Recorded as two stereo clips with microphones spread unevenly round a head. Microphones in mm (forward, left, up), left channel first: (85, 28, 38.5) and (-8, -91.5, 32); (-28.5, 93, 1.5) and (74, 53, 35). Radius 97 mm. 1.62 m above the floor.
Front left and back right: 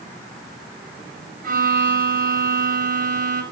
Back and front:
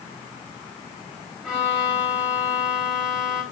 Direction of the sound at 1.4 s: 105° right.